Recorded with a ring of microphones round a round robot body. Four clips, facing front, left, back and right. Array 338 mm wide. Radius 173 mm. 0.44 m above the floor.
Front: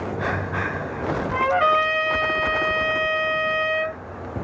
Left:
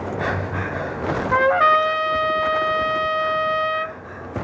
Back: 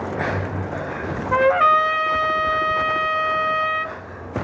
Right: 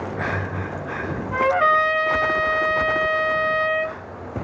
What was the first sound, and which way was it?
A trumpet, 125° left.